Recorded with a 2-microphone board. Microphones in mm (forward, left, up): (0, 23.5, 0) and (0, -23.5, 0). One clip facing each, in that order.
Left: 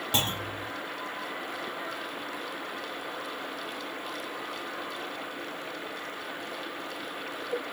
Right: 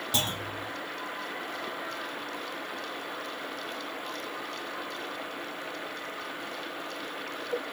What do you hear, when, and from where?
0.1 s a clunk: 35° left (ahead or behind), 0.8 m